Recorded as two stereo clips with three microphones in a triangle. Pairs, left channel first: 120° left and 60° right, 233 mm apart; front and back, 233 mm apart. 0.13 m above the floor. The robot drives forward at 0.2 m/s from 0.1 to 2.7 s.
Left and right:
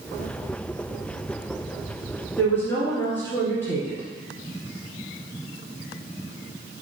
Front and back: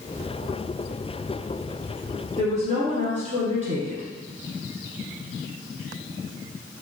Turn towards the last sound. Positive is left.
turn(degrees=-165)